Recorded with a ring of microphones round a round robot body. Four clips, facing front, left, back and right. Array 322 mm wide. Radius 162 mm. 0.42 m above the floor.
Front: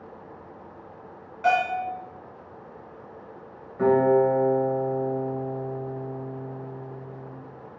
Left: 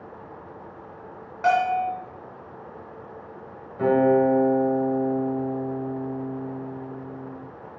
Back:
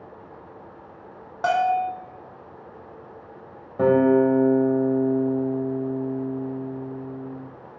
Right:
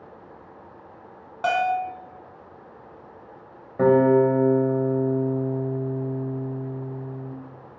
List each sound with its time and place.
1.4 s a bell: 160° right, 2 m
3.8 s a guitar: 135° right, 1.9 m